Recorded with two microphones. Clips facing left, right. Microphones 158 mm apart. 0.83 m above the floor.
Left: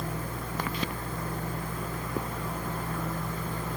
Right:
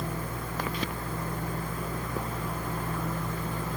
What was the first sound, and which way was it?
Only background noise.